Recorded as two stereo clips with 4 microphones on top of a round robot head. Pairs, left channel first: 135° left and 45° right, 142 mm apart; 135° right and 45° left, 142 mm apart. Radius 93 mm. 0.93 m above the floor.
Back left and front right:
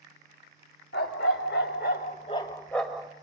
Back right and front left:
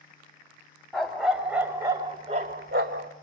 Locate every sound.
0.9 s a dog barking: 140° left, 1.4 m; by 3.1 s 35° left, 1.0 m